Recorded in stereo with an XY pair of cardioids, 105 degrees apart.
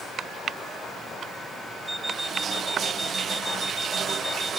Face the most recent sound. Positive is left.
turn(degrees=-15)